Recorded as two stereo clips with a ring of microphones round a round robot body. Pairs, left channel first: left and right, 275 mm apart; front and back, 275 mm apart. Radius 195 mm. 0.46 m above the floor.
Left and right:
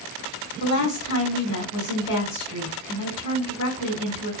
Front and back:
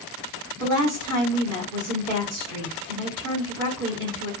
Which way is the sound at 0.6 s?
160° left.